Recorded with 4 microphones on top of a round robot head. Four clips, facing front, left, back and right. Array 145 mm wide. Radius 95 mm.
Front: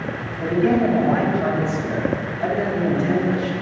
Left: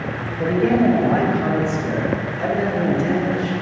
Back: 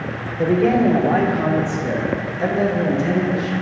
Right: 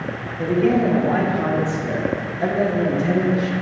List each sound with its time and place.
0.4 s a man speaking: 175° right, 2.5 m; by 3.5 s 130° right, 2.5 m